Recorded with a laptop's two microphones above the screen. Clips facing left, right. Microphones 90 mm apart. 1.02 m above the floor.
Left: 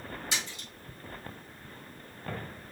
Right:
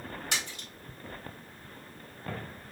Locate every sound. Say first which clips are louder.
0.3 s a splash: right 1 dB; 60° right (ahead or behind), 1.7 m